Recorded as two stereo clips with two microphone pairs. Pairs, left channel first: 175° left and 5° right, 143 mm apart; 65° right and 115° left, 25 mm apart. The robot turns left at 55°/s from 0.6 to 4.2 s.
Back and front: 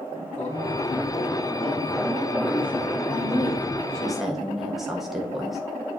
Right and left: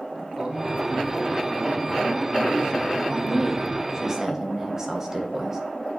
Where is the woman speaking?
145° left, 1.5 m; by 5.6 s 85° left, 1.5 m.